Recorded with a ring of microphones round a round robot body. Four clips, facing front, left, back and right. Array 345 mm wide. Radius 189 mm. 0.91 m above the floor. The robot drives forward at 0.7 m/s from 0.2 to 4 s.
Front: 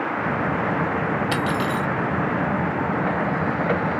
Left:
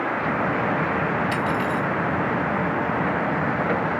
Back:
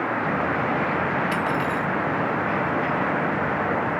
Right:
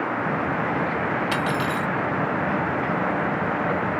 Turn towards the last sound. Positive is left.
turn(degrees=-100)